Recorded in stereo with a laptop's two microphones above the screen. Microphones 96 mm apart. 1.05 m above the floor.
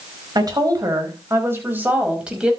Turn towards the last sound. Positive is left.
turn(degrees=-10)  # may be behind; listen again after turning